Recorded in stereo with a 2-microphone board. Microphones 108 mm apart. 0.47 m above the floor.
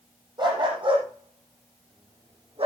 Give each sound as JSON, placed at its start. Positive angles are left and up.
{"t": 0.4, "sound": "a dog barking", "side_deg": -40, "distance_m": 5.5}